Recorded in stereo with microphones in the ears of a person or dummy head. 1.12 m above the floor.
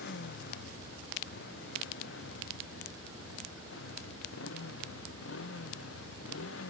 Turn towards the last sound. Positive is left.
turn(degrees=75)  # may be behind; listen again after turning